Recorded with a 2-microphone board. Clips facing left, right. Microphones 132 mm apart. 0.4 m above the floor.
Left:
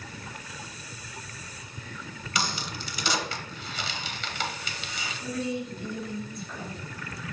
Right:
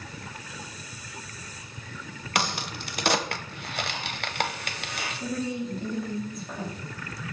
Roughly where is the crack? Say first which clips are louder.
Right 3 dB; right.